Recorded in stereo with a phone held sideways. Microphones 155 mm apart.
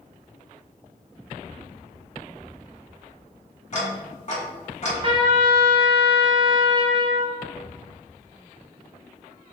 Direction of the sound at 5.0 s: 35° right (ahead or behind).